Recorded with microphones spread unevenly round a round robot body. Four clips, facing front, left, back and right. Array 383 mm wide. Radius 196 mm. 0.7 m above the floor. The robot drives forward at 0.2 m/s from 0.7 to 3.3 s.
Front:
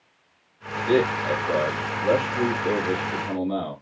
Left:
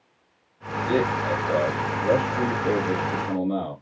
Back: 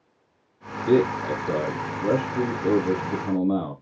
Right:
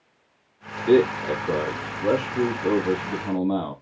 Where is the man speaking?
145° right, 1.2 m; by 3.7 s 155° right, 1.6 m.